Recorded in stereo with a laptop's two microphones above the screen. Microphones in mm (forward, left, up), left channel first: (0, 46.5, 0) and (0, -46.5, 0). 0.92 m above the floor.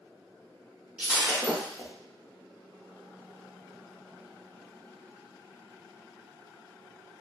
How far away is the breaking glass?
About 0.8 m.